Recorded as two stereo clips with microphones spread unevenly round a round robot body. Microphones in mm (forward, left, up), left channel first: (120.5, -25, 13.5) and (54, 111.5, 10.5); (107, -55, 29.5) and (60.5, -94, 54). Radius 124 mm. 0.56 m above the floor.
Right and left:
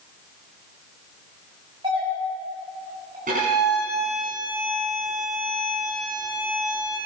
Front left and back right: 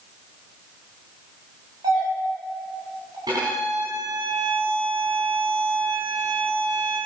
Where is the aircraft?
I don't hear an aircraft.